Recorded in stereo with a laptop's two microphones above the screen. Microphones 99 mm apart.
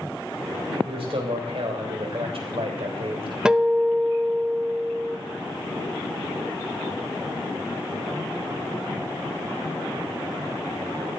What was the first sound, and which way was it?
A man speaking, 70° right (ahead or behind).